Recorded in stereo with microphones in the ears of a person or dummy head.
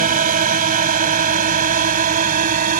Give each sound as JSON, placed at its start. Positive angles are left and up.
{"t": 0.0, "sound": "a drone", "side_deg": -40}